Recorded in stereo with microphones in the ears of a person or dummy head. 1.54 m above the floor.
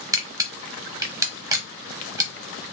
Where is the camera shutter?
20° right (ahead or behind), 0.6 m.